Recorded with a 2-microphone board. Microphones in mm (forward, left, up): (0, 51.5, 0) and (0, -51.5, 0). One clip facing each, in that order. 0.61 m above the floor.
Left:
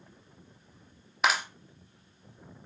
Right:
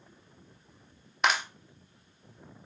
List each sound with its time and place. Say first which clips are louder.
1.2 s a clap: even; centre (ahead or behind), 1.0 m